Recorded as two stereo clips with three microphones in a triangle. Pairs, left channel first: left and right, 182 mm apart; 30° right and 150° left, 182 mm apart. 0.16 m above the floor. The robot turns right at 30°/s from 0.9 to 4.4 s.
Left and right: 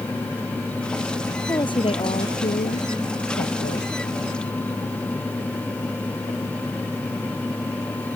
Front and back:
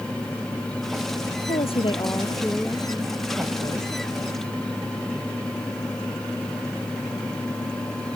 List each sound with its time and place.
1.5 s a woman speaking: 20° left; by 3.9 s 95° left